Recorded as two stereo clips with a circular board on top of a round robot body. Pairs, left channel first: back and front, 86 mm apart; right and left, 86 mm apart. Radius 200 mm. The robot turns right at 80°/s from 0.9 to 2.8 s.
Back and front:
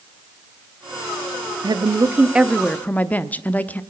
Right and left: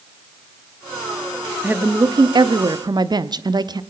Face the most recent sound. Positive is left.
turn(degrees=110)